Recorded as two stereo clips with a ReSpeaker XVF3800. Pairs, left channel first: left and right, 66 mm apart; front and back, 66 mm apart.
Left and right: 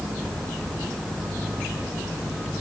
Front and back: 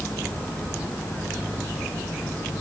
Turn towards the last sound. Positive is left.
No sound to turn to.